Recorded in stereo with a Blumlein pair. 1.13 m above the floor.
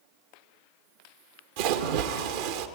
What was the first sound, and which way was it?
A splash, 50° right.